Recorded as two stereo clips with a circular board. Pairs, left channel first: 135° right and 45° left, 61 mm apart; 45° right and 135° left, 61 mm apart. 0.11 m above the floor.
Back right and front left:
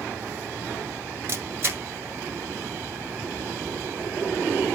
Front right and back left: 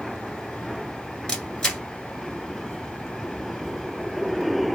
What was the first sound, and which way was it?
A camera shutter, 25° left.